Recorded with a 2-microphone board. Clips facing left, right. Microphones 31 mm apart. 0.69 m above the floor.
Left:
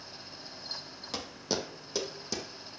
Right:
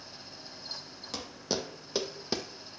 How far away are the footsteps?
About 1.2 m.